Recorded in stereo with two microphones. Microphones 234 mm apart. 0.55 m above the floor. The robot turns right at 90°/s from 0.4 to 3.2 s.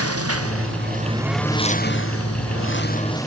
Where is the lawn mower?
85° right; by 3.3 s 165° left.